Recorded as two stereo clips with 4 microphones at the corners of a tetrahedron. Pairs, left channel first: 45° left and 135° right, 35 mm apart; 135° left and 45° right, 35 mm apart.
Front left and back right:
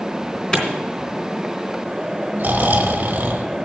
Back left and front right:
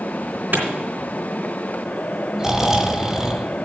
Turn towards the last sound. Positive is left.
turn(degrees=-120)